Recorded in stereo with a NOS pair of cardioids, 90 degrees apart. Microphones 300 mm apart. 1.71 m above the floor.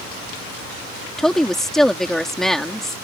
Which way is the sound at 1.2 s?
Straight ahead.